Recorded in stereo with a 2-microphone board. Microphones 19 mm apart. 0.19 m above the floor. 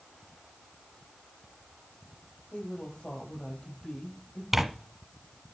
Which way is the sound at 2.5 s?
70° left (ahead or behind).